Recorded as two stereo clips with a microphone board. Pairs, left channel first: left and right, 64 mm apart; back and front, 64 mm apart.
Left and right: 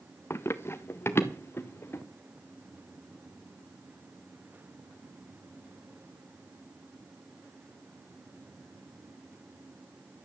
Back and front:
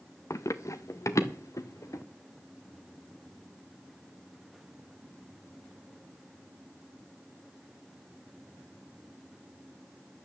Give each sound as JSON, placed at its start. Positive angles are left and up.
{"t": 0.3, "sound": "running footsteps", "azimuth_deg": 140, "distance_m": 1.1}